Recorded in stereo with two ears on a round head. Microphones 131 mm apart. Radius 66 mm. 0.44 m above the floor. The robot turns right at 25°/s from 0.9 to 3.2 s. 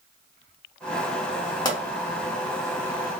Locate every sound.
1.6 s a pop: 30° left (ahead or behind), 0.9 m; by 1.8 s 25° left (ahead or behind), 0.9 m